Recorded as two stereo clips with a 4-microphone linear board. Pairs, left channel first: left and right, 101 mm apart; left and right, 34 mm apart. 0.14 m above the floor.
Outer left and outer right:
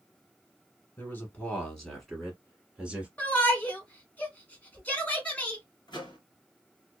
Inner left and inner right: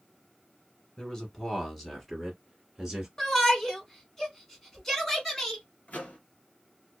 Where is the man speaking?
20° left (ahead or behind), 1.1 m; by 3.1 s 10° right (ahead or behind), 1.5 m.